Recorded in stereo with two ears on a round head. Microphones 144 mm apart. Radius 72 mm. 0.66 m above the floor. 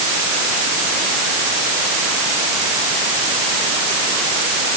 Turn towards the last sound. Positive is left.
No sound to turn to.